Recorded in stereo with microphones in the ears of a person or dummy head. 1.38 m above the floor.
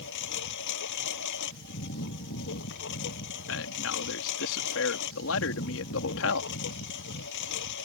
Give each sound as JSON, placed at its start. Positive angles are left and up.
{"t": 0.0, "sound": "a lawn mower", "side_deg": 65}
{"t": 3.5, "sound": "a man speaking", "side_deg": 80}